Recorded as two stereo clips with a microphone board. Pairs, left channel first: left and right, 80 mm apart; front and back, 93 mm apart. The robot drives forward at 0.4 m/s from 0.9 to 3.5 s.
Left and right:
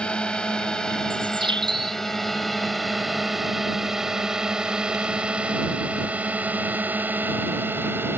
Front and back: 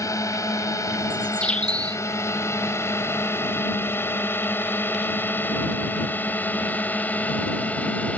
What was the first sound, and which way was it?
A drone, 20° left.